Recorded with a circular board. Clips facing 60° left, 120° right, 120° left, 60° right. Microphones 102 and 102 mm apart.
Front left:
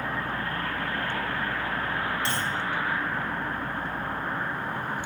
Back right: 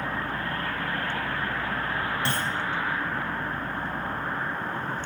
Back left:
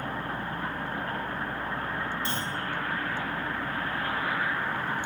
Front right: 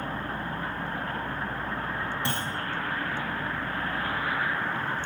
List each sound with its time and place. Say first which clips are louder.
2.2 s a clunk: back right 1 dB, front right 1 dB; 85° right, 0.6 m